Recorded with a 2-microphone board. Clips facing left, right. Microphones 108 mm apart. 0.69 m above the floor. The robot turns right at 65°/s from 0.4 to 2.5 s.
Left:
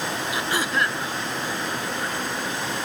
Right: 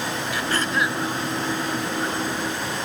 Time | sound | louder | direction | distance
0.3 | throat clearing | right 1 dB | 155° left | ?